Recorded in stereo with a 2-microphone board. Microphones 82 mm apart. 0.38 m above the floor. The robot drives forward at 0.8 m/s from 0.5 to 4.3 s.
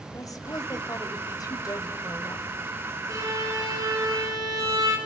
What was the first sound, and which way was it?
A woman speaking, 45° left (ahead or behind).